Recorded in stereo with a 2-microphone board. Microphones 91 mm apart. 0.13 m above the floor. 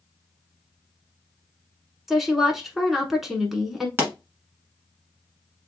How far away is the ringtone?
No ringtone in this recording.